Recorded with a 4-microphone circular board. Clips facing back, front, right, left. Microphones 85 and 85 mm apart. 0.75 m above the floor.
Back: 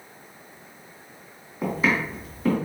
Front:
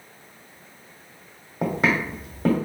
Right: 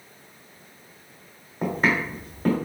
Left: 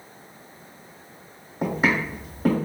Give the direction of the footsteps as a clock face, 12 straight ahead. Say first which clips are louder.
Front 1 dB, left 1 dB; 12 o'clock.